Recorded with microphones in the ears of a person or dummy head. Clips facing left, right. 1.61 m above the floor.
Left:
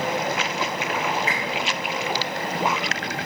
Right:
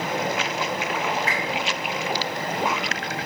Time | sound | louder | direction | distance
1.3 | a whoosh | even | 45° right (ahead or behind) | 5 m